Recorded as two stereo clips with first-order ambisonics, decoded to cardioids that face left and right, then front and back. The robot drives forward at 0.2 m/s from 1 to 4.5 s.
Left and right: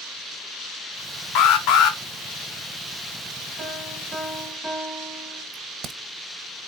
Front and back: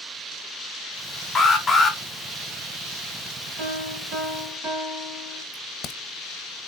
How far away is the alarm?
About 1.0 m.